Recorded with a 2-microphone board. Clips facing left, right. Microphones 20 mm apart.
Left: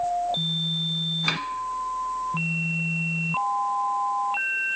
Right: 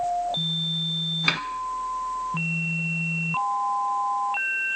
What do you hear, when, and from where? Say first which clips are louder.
1.3 s a snare drum: right 4 dB; 15° right (ahead or behind), 0.5 m